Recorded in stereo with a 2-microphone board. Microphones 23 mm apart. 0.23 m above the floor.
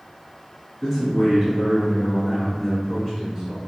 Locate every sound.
0.8 s a man speaking: 15° left (ahead or behind), 1.4 m